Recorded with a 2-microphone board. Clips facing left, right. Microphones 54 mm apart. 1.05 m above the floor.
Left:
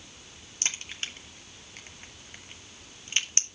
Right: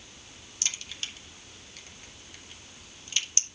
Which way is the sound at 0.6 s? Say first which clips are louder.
Left 2 dB; 35° left (ahead or behind).